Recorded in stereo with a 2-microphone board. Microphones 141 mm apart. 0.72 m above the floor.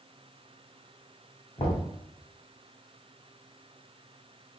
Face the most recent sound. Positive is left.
turn(degrees=40)  # may be behind; listen again after turning